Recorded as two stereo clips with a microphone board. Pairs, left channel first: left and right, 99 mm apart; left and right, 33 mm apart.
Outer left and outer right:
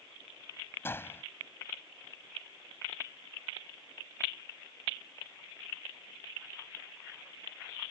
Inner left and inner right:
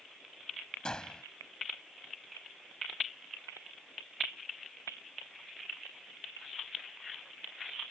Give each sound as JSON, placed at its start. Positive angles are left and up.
{"t": 0.8, "sound": "a gunshot", "side_deg": 25}